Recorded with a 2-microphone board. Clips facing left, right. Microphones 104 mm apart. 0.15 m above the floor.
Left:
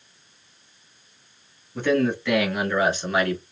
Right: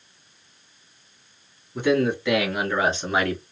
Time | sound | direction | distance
1.8 | a man speaking | 15° right (ahead or behind) | 2 m